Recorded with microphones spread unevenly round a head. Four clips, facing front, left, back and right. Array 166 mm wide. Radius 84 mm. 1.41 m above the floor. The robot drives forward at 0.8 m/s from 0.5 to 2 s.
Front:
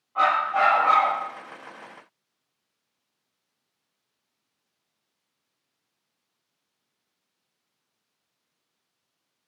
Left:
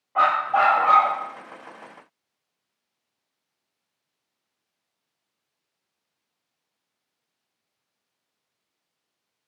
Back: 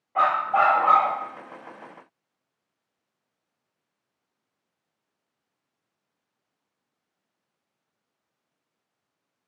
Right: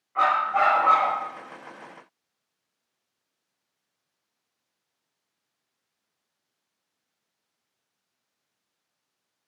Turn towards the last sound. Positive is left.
turn(degrees=150)